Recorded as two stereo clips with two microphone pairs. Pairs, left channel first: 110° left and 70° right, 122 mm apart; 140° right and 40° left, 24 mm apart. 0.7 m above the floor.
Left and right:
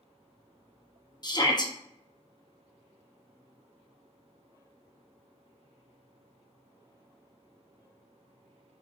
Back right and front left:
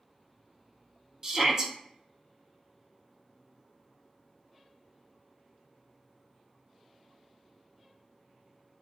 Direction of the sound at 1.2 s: 80° left.